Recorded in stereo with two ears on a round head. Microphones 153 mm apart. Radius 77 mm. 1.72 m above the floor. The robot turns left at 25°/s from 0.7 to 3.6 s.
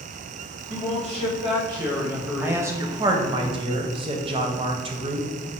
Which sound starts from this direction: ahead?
A man speaking, at 2.4 s.